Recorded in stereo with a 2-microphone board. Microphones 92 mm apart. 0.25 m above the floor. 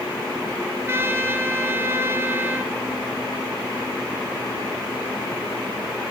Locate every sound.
0.6 s a trumpet: 30° right (ahead or behind), 1.5 m